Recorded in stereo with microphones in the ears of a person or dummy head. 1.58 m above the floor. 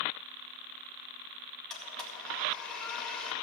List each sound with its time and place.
1.7 s a blender: 5° left (ahead or behind), 2.0 m